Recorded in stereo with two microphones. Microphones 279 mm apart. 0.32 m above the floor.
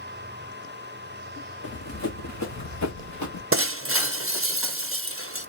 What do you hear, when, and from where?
1.6 s running footsteps: 55° left (ahead or behind), 1.4 m; by 3.4 s 80° left, 1.9 m
3.5 s breaking glass: 50° right (ahead or behind), 0.6 m